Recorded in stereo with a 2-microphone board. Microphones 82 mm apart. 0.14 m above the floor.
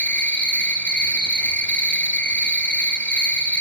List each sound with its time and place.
0.0 s an insect: 15° left (ahead or behind), 0.7 m